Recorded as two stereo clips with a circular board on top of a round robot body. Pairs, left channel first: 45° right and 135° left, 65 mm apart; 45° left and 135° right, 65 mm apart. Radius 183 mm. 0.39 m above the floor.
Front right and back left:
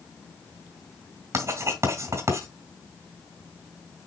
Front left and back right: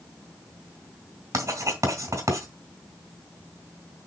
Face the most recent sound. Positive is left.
turn(degrees=180)